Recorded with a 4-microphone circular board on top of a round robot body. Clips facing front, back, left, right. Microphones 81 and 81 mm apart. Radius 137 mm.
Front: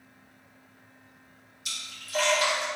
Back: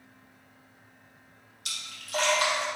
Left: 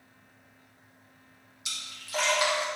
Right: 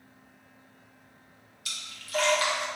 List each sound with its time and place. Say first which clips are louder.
1.6 s a splash: back 2 dB, even; 160° left, 2 m